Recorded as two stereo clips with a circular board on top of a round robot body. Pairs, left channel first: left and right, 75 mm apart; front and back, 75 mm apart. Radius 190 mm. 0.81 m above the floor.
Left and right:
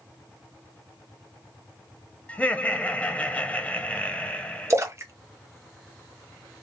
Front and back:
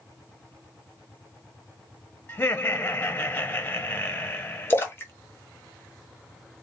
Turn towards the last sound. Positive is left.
turn(degrees=-50)